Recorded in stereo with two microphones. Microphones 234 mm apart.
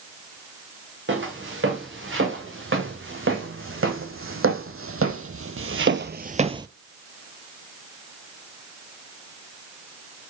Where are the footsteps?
55° right (ahead or behind), 3 m; by 6.7 s 15° right (ahead or behind), 0.6 m.